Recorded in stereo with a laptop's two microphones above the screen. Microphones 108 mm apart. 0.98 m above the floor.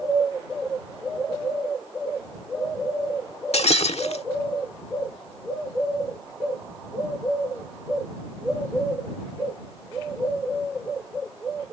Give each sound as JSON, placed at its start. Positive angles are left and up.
{"t": 3.5, "sound": "breaking glass", "side_deg": 75}